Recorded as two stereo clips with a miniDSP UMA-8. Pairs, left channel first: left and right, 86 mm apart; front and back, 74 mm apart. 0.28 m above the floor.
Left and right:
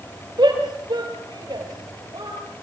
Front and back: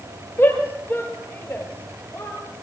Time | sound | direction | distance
0.4 | a shout | 60° right | 6 m